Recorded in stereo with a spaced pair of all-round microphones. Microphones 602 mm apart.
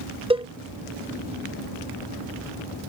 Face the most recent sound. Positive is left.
turn(degrees=-10)  # may be behind; listen again after turning